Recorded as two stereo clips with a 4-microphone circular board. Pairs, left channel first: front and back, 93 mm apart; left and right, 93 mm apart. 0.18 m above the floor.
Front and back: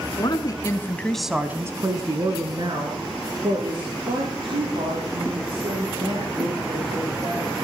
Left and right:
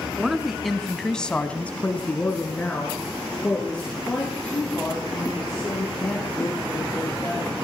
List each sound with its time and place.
0.2 s a woman speaking: 5° right, 1.6 m; by 7.7 s 165° left, 8.5 m